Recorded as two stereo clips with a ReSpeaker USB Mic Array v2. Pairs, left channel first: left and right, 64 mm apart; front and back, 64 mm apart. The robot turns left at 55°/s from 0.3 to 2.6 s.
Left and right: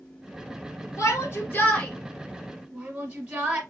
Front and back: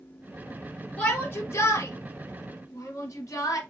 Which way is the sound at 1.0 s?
60° left.